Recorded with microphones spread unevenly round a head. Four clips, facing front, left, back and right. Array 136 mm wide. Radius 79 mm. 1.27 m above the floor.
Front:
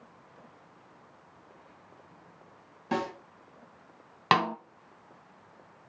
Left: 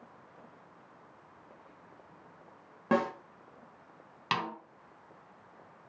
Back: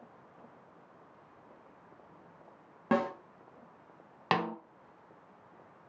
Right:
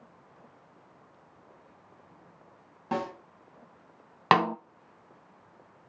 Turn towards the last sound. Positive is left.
turn(degrees=-85)